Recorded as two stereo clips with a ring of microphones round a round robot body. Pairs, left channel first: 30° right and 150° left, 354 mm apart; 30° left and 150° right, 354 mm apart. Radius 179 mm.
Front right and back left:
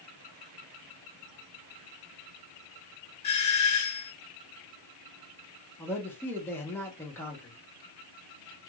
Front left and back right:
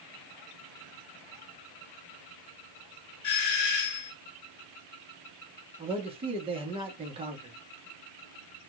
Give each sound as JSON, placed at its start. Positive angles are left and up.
{"t": 3.2, "sound": "a doorbell", "azimuth_deg": 40, "distance_m": 2.5}
{"t": 5.8, "sound": "a man speaking", "azimuth_deg": -105, "distance_m": 1.0}